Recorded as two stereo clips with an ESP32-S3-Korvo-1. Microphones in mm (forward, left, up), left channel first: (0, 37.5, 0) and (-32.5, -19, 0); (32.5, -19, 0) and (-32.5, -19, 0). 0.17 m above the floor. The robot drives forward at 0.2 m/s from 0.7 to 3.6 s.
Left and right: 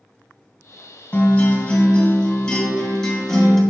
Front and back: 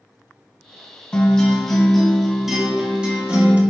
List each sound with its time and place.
1.1 s a guitar: 50° left, 0.8 m; by 3.6 s 140° left, 0.8 m